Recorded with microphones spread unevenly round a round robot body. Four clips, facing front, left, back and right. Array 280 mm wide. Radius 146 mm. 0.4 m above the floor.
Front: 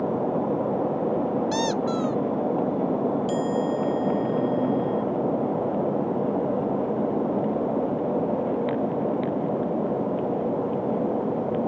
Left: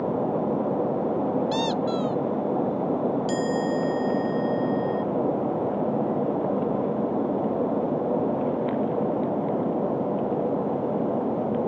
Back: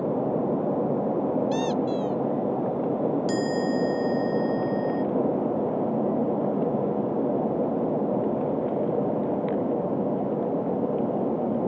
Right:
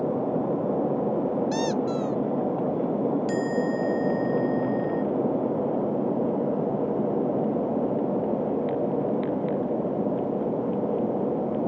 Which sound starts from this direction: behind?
A chime, at 3.3 s.